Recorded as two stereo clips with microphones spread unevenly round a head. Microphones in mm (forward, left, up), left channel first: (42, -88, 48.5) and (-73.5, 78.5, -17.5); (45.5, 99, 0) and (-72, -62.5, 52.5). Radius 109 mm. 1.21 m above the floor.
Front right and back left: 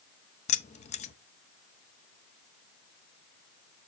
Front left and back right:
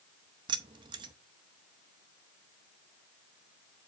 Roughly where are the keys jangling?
Right.